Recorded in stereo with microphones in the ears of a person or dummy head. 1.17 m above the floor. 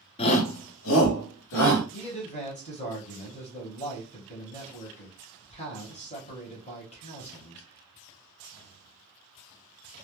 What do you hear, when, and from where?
0.2 s a shout: 30° left (ahead or behind), 0.7 m; by 1.8 s 80° left, 1.3 m
1.9 s a man speaking: 30° left (ahead or behind), 0.9 m